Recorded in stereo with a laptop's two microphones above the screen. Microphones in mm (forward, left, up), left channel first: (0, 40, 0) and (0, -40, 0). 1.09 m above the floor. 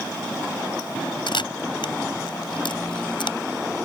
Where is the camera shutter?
80° left.